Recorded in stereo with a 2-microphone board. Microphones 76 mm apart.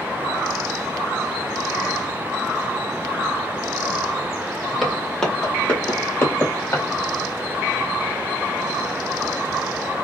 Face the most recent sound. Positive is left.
turn(degrees=40)  # may be behind; listen again after turning